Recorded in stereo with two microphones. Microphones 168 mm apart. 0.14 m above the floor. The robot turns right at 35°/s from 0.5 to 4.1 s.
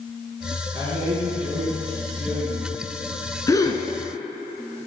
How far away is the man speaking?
About 1.8 m.